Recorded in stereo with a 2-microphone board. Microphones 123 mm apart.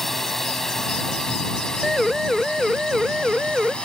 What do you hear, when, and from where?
0.0 s a drone: centre (ahead or behind); by 3.9 s 10° left (ahead or behind)
1.8 s a siren: centre (ahead or behind); by 3.8 s 5° right (ahead or behind)